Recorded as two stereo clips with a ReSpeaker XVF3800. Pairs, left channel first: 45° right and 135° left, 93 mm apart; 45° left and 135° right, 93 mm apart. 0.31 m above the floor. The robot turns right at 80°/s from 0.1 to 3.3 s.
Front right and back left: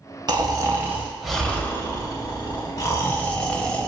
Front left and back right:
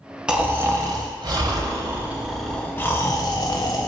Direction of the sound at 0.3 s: 145° left.